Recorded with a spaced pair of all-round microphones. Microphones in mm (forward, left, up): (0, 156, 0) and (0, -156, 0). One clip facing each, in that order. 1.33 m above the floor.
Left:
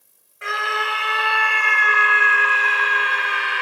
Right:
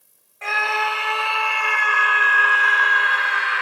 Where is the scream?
15° left (ahead or behind), 5.5 m; by 3.6 s 40° left (ahead or behind), 4 m.